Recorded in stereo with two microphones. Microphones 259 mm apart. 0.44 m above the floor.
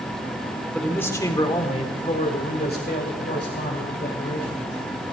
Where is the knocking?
No knocking in this recording.